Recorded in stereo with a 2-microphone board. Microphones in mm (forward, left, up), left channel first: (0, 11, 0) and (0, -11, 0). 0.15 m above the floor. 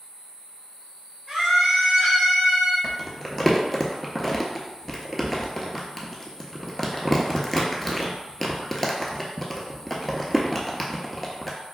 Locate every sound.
1.3 s a scream: 25° right (ahead or behind), 1.1 m; by 2.7 s 40° right (ahead or behind), 1.8 m
2.8 s crumpling: 10° left (ahead or behind), 0.6 m